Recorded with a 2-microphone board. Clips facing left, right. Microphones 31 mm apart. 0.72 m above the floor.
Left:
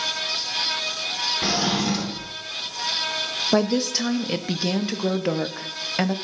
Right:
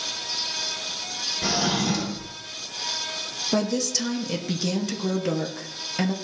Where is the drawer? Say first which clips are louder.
Right 1 dB; 25° left (ahead or behind), 1.0 m.